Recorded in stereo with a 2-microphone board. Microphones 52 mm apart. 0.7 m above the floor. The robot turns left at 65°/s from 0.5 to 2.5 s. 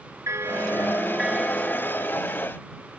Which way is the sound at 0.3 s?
120° right.